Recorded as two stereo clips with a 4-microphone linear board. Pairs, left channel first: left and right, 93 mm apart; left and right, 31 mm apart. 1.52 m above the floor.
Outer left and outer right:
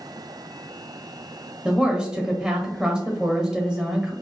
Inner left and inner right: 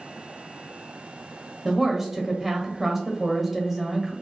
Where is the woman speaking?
5° right (ahead or behind), 0.6 m.